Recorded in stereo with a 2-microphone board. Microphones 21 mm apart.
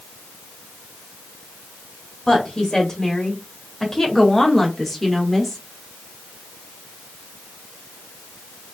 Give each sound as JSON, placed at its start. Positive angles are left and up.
{"t": 2.3, "sound": "a woman speaking", "side_deg": 25, "distance_m": 1.3}